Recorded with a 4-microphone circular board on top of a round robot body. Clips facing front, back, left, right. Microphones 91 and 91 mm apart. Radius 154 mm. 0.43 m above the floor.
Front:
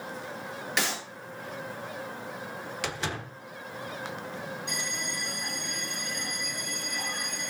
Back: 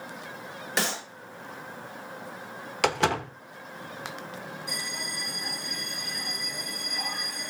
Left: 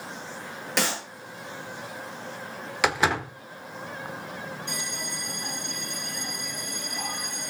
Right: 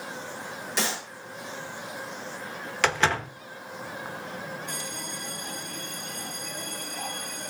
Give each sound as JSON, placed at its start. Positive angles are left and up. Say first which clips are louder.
{"t": 0.8, "sound": "a clap", "louder": "back 2 dB, left 3 dB", "azimuth_deg": 120, "distance_m": 8.5}
{"t": 2.8, "sound": "a door slam", "louder": "back 11 dB, left 1 dB", "azimuth_deg": 170, "distance_m": 1.3}
{"t": 4.7, "sound": "a bell", "louder": "front 1 dB, left 1 dB", "azimuth_deg": 95, "distance_m": 6.5}